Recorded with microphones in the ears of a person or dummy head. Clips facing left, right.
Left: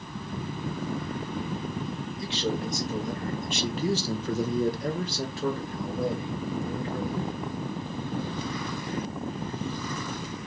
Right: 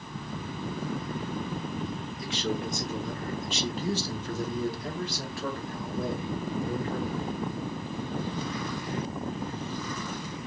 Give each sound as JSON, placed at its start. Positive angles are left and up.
{"t": 2.2, "sound": "a man speaking", "side_deg": 30, "distance_m": 1.5}